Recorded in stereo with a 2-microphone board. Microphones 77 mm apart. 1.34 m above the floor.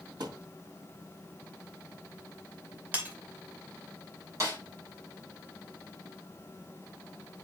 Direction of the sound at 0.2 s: 65° right (ahead or behind).